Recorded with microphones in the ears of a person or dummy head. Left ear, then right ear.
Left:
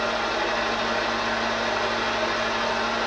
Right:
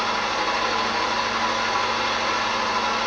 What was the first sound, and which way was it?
A fan, 70° right (ahead or behind).